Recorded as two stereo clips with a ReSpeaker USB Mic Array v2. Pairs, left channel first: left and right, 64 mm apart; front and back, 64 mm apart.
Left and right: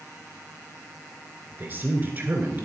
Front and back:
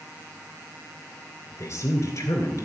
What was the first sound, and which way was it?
A woman speaking, 35° right.